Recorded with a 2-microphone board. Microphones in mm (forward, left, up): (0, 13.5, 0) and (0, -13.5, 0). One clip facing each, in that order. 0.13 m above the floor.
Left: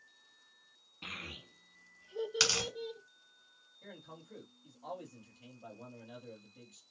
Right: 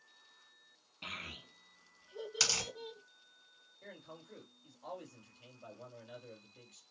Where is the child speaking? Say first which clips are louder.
Even; 5° right (ahead or behind), 0.8 m; by 3.0 s 20° left (ahead or behind), 1.4 m.